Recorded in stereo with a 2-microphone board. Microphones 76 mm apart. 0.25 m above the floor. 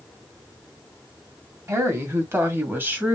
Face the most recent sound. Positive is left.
turn(degrees=-25)  # may be behind; listen again after turning